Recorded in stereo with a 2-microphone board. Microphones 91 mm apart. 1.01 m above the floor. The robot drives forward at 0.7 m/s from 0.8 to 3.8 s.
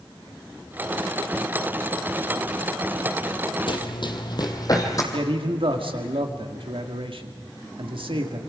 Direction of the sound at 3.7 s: 60° left (ahead or behind).